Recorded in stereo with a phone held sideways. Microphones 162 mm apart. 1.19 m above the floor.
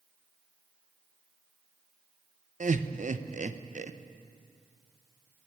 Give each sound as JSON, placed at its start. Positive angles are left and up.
{"t": 2.6, "sound": "laughter", "side_deg": -50, "distance_m": 0.7}